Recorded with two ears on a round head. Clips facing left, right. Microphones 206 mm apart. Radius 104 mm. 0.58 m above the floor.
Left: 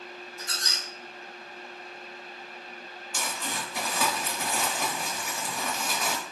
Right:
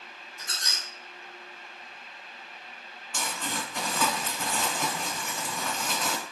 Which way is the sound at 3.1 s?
5° left (ahead or behind).